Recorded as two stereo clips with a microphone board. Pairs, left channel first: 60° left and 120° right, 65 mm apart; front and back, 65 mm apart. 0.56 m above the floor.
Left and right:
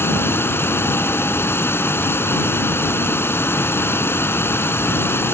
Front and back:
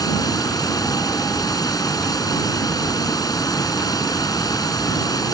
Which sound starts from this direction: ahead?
Running water, at 0.0 s.